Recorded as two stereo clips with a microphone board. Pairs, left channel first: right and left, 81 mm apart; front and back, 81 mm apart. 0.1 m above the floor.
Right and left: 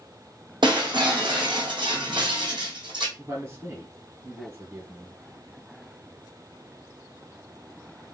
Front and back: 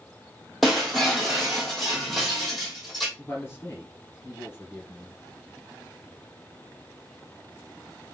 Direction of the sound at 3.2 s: 55° left.